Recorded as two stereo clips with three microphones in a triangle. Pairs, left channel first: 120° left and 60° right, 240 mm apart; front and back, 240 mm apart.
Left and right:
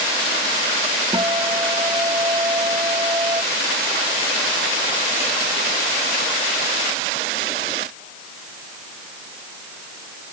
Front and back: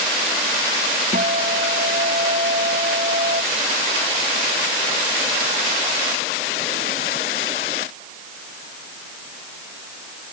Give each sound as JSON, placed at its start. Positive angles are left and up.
{"t": 1.1, "sound": "a guitar", "azimuth_deg": -130}